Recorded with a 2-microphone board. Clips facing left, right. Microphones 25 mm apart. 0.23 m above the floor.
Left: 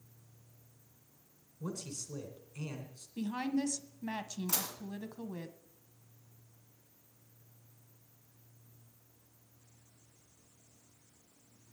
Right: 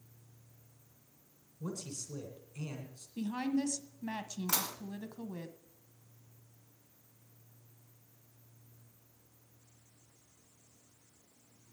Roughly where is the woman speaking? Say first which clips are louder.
Even; centre.